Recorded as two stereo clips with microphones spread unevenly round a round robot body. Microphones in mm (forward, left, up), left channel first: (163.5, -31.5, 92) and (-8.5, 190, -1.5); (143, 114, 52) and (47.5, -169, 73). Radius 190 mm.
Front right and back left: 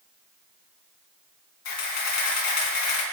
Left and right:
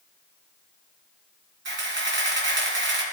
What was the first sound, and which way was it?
A camera shutter, 55° right.